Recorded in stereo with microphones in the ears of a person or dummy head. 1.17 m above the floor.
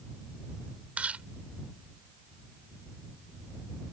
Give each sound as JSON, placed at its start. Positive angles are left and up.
{"t": 1.0, "sound": "chewing", "side_deg": -10}